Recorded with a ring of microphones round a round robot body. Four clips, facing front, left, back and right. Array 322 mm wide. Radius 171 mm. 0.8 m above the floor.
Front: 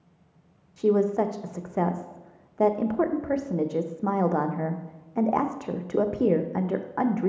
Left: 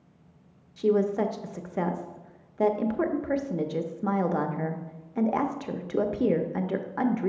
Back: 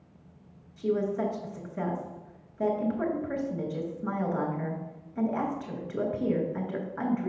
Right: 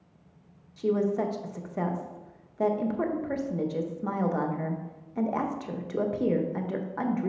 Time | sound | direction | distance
0.8 | a woman speaking | 15° left | 0.7 m